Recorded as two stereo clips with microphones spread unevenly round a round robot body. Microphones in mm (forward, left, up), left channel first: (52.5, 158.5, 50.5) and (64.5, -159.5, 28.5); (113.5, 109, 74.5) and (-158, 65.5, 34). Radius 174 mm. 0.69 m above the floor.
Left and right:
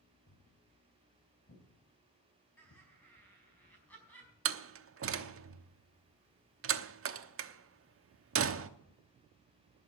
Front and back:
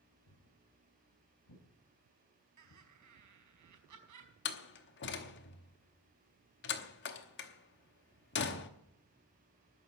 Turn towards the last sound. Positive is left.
turn(degrees=-45)